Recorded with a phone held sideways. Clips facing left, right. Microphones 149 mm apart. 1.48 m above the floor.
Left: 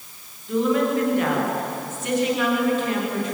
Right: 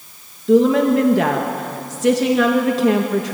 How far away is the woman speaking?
About 2 m.